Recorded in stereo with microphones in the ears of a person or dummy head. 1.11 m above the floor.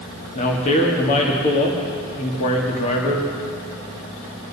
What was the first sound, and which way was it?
A man speaking, 40° left (ahead or behind).